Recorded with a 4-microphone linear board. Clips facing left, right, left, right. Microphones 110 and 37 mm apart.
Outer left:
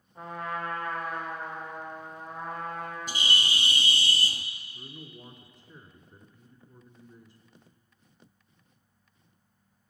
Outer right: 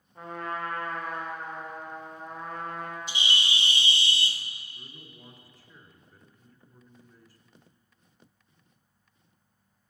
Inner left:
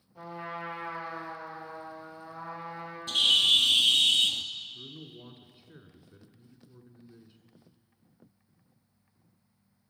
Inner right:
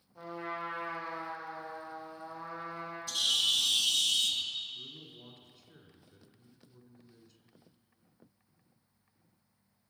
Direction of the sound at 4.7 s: 20° left (ahead or behind).